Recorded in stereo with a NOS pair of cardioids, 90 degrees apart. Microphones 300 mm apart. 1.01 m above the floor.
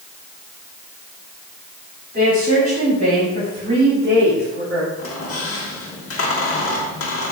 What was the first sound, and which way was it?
A woman speaking, 30° right.